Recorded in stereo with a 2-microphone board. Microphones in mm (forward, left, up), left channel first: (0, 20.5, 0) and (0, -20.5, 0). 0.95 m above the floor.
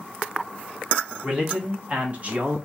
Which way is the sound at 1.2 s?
25° right (ahead or behind).